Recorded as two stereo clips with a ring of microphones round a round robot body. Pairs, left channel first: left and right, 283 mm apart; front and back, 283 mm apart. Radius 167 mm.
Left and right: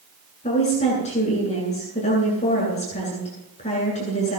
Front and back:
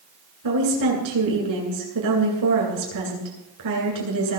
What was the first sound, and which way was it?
A woman speaking, 160° left.